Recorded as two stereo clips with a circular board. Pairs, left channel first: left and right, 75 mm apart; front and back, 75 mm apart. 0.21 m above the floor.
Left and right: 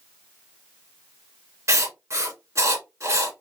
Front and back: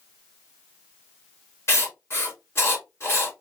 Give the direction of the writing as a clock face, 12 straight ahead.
2 o'clock.